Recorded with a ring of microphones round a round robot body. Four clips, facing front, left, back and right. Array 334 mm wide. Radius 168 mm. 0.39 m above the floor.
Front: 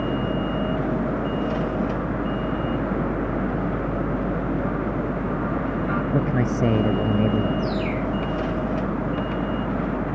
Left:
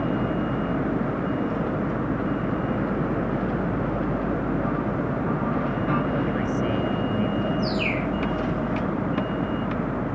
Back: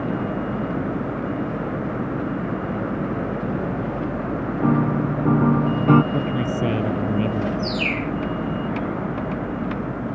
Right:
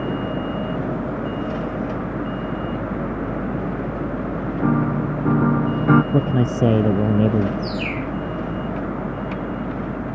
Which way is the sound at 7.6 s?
Straight behind.